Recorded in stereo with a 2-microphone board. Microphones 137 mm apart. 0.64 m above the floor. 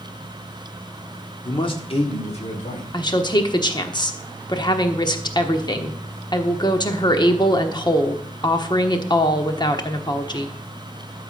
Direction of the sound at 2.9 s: 30° left (ahead or behind).